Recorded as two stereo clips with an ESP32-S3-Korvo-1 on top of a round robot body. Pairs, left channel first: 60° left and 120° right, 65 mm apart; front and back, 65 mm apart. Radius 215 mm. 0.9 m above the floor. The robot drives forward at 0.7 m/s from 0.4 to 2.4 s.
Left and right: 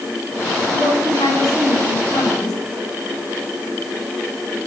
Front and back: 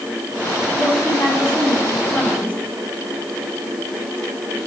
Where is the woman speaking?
55° left, 9.5 m; by 2.6 s 65° left, 9 m.